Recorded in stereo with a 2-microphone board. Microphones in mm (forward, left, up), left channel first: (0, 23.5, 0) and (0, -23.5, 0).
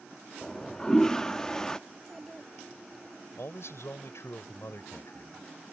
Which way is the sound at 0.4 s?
15° left (ahead or behind).